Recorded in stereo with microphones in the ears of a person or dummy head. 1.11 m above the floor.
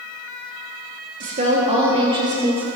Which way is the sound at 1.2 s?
40° right (ahead or behind).